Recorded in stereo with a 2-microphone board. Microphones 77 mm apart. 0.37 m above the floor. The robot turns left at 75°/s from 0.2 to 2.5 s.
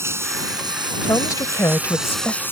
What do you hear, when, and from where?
0.0 s running water: 35° right; by 2.5 s 150° left
1.0 s a woman speaking: 120° left; by 2.4 s 15° left